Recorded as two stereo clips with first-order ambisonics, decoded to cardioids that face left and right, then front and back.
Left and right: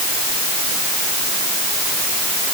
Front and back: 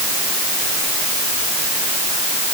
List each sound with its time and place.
Only background noise.